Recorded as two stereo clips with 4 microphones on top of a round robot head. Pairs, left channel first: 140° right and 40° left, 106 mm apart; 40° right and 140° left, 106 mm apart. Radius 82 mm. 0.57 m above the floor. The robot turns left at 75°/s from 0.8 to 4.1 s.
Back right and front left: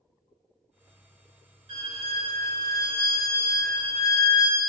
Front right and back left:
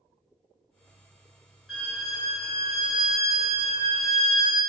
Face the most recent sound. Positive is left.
turn(degrees=-130)